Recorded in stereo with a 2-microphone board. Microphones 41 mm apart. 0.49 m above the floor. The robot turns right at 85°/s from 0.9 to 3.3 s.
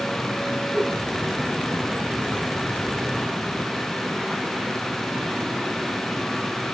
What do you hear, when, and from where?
0.7 s a whoosh: 35° right (ahead or behind), 2 m; by 1.0 s 40° right (ahead or behind), 2 m